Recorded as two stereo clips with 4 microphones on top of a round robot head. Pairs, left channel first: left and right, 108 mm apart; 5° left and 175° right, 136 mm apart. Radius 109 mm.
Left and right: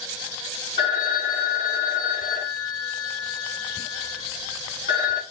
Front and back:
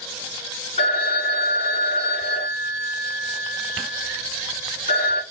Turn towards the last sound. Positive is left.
turn(degrees=50)